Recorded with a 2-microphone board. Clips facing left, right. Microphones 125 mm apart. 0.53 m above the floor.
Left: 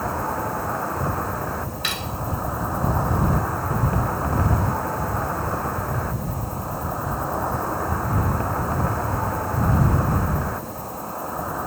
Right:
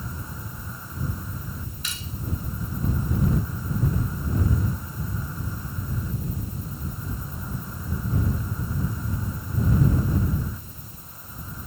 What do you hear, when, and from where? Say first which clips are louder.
0.0 s an insect: left 13 dB; 75° left (ahead or behind)
1.8 s cutlery clinking: left 9 dB; 70° left (ahead or behind)